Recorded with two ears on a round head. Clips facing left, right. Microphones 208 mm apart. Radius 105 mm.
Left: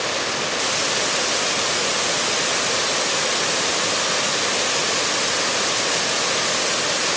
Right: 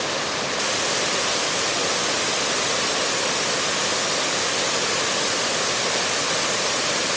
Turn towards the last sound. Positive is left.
No sound to turn to.